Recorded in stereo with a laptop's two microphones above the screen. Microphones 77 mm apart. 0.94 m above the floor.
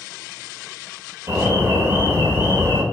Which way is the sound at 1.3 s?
40° right (ahead or behind).